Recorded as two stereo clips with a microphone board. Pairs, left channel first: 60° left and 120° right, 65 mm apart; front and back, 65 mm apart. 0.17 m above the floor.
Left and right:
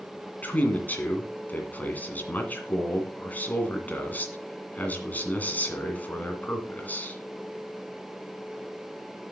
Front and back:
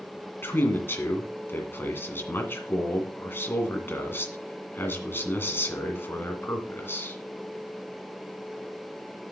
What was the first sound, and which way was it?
A man speaking, 15° left.